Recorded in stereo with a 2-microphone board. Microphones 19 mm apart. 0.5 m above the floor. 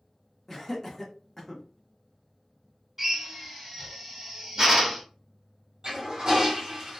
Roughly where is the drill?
Centre.